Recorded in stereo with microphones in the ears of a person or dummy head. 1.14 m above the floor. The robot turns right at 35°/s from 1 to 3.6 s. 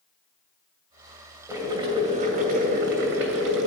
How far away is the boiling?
About 2 m.